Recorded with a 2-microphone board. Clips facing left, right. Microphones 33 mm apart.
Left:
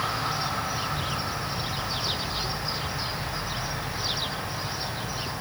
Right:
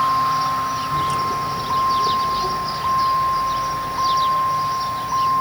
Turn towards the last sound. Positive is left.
turn(degrees=-75)  # may be behind; listen again after turning